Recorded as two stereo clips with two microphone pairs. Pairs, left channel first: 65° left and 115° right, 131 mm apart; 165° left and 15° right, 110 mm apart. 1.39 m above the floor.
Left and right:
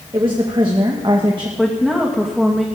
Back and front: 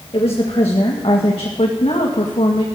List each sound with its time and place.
0.1 s a woman speaking: 170° right, 1.9 m
1.6 s a woman speaking: 160° left, 2.5 m